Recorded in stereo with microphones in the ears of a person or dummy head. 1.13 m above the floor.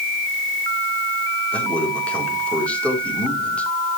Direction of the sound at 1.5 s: 5° left (ahead or behind).